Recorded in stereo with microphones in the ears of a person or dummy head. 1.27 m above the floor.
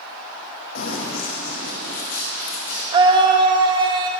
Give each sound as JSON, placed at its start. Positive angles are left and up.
{"t": 0.8, "sound": "running footsteps", "side_deg": 65, "distance_m": 2.5}
{"t": 2.9, "sound": "a scream", "side_deg": -25, "distance_m": 1.0}